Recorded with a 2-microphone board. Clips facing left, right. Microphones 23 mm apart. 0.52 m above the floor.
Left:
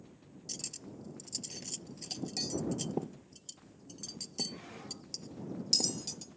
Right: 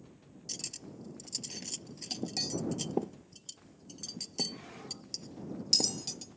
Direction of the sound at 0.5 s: 20° right (ahead or behind).